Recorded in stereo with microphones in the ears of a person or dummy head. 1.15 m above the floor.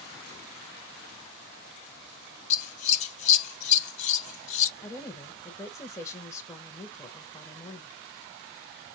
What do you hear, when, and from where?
2.5 s scissors: 40° left (ahead or behind), 0.6 m
4.8 s a woman speaking: 15° left (ahead or behind), 1.0 m